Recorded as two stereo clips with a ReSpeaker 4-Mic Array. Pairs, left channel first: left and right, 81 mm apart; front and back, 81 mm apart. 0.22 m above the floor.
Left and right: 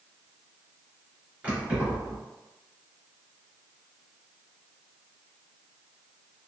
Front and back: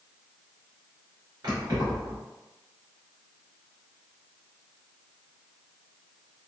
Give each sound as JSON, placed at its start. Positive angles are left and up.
{"t": 1.4, "sound": "keys jangling", "azimuth_deg": -160, "distance_m": 1.7}